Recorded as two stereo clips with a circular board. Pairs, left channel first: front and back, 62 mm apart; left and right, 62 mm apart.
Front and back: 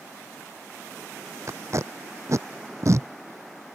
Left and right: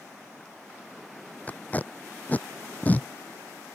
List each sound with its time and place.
1.5 s tape being pulled: 150° left